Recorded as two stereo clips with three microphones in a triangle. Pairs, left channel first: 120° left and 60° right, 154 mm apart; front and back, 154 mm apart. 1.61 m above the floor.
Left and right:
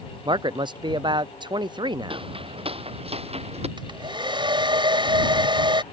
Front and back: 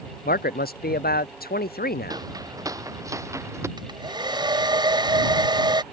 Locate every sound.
0.2 s a man speaking: straight ahead
2.1 s footsteps: 115° right; by 3.7 s 110° right
3.8 s a hair dryer: 120° right